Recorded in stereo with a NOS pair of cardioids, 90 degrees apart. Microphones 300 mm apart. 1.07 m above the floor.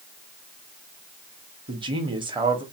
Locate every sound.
1.7 s a man speaking: 15° right, 0.9 m